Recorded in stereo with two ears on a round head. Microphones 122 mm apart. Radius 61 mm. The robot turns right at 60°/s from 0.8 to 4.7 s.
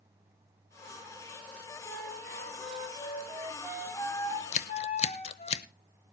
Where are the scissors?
60° left (ahead or behind), 0.6 m; by 5.6 s 50° left (ahead or behind), 0.6 m.